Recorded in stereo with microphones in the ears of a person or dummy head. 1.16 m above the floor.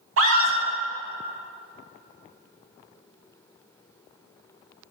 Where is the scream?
75° right (ahead or behind), 1.5 m.